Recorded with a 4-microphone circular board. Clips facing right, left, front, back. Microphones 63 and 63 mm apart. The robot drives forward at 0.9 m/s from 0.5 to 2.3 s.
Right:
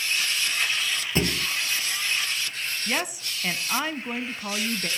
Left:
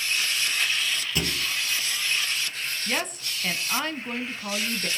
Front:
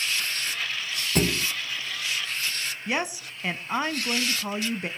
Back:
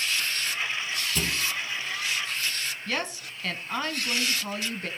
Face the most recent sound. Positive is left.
turn(degrees=-25)